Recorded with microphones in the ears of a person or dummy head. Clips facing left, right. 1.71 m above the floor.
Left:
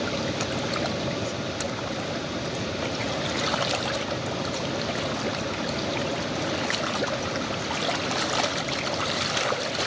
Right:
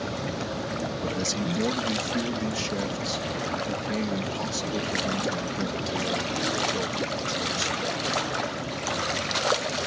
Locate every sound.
1.0 s a man speaking: 80° right